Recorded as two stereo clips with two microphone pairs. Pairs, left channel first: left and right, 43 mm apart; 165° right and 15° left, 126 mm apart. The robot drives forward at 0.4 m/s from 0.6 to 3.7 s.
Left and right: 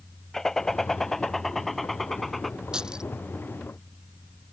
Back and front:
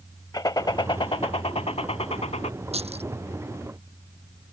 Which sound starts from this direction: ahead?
Keys jangling, at 2.7 s.